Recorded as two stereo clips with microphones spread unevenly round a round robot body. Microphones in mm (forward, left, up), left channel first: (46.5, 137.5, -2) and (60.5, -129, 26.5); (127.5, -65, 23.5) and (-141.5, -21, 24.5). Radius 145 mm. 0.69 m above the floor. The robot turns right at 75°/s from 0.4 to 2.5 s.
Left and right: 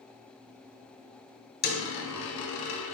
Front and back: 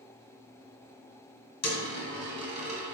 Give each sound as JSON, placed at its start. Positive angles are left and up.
{"t": 1.6, "sound": "a dropped coin", "azimuth_deg": 40, "distance_m": 1.2}